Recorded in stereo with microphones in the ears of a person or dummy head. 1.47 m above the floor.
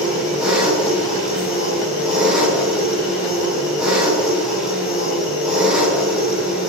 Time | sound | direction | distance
0.0 | an engine running | 5° left (ahead or behind) | 4.5 m